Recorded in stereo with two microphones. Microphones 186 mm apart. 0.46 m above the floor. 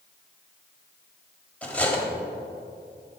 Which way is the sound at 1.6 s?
10° left (ahead or behind).